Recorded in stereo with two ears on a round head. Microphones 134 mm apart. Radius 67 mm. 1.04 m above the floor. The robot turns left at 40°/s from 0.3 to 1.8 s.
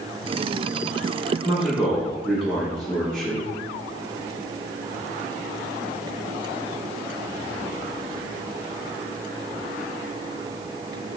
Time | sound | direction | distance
1.4 | a man speaking | 10° right (ahead or behind) | 1.0 m